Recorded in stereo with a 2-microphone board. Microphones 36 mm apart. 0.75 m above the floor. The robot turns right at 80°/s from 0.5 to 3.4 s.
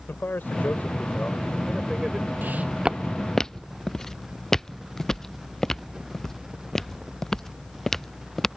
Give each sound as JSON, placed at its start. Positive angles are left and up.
{"t": 0.1, "sound": "a man speaking", "azimuth_deg": 80}
{"t": 2.4, "sound": "footsteps", "side_deg": -55}